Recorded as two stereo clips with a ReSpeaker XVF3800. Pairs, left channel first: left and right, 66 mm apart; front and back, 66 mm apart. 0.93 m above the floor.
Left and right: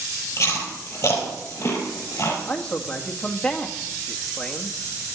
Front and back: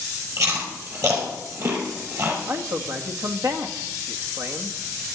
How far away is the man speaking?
About 1.6 m.